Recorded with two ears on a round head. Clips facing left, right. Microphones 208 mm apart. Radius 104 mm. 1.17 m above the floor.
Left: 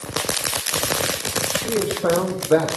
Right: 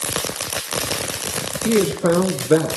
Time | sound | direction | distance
1.6 | a man speaking | 30° right (ahead or behind) | 0.5 m